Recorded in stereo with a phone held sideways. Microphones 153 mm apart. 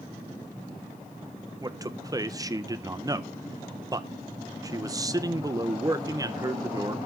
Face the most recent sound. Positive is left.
turn(degrees=-25)  # may be behind; listen again after turning